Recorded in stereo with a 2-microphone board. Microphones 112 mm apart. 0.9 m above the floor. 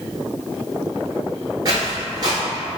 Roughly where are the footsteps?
Right.